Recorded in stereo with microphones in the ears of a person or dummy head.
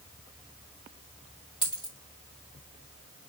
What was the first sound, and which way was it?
A dropped coin, 20° left (ahead or behind).